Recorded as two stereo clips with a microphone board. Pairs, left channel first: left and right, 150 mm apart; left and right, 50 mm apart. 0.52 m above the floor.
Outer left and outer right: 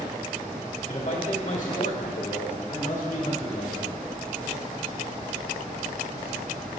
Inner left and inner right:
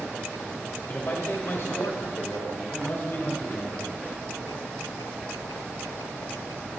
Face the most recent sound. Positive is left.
turn(degrees=45)  # may be behind; listen again after turning